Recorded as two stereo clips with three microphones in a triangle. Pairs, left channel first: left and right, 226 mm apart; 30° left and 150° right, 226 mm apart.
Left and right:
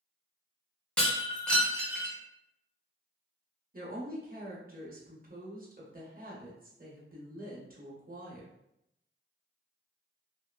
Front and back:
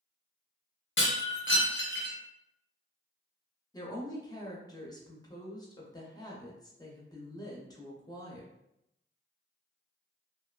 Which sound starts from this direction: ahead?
Breaking glass, at 1.0 s.